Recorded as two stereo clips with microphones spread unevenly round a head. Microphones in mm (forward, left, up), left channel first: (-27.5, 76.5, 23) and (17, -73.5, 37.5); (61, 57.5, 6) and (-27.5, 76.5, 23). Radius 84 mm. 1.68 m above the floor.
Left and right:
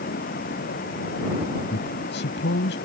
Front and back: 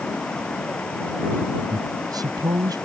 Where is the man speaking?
125° left.